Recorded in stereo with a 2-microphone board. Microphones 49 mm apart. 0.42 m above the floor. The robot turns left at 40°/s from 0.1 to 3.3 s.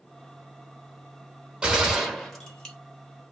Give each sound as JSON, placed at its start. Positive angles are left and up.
{"t": 1.6, "sound": "a gunshot", "azimuth_deg": -155, "distance_m": 0.9}